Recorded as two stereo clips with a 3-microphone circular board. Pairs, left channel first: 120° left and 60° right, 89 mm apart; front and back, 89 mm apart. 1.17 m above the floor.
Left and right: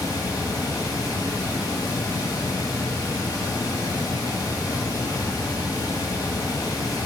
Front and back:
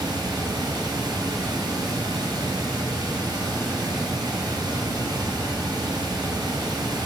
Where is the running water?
160° left, 2.0 m.